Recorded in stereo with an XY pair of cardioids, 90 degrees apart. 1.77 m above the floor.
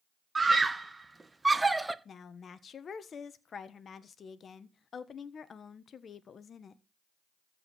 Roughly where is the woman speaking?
Ahead left.